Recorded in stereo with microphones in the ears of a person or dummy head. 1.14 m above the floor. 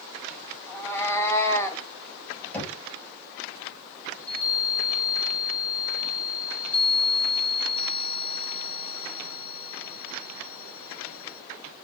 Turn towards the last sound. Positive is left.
turn(degrees=10)  # may be behind; listen again after turning